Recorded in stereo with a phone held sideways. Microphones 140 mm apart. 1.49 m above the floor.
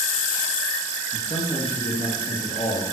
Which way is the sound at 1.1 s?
45° left (ahead or behind).